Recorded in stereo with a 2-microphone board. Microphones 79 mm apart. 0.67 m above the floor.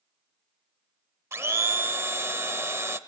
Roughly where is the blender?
Right.